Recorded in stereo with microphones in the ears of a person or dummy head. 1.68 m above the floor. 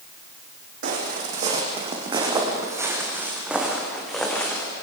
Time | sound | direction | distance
0.8 | footsteps | 50° right (ahead or behind) | 4 m